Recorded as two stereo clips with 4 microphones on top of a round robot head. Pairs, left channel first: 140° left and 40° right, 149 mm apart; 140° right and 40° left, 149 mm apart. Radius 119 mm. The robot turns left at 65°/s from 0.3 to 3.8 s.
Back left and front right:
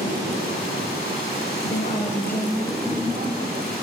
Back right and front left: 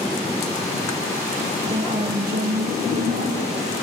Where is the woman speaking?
105° left, 4.5 m; by 3.7 s 30° right, 4.5 m.